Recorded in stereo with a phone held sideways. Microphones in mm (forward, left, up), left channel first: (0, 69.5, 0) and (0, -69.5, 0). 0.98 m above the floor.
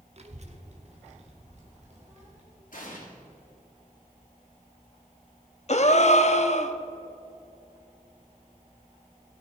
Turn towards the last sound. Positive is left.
turn(degrees=50)  # may be behind; listen again after turning